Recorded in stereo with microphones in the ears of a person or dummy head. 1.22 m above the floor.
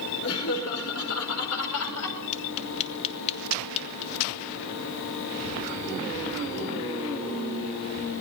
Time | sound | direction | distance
0.2 | laughter | 80° left | 5.5 m
2.3 | tapping | 35° left (ahead or behind) | 2 m